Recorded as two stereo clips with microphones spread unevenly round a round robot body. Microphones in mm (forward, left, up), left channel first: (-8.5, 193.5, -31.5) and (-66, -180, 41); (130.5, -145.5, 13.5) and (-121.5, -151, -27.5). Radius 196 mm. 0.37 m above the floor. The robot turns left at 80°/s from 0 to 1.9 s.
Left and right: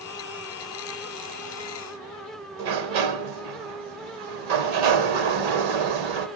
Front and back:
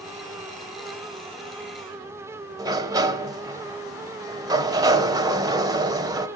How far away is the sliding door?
About 1.5 m.